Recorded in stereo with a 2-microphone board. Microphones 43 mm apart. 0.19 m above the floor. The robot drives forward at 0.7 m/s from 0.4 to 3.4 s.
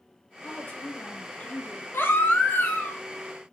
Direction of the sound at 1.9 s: 65° left (ahead or behind).